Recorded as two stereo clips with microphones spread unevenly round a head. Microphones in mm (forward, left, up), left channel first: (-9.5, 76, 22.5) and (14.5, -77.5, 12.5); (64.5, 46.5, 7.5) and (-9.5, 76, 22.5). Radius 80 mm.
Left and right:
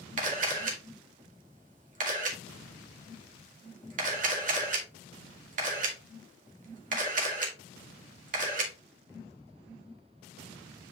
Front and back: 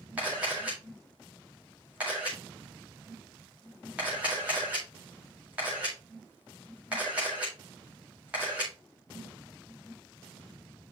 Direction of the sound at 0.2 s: 125° right.